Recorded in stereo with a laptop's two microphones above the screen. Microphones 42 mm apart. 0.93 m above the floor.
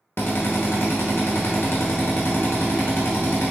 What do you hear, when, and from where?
0.2 s a drill: 70° left (ahead or behind), 1.1 m